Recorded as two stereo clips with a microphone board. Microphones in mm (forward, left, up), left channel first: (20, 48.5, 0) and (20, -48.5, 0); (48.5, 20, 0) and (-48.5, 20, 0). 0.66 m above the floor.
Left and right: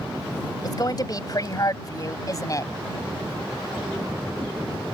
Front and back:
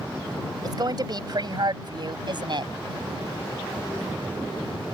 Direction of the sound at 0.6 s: 135° left.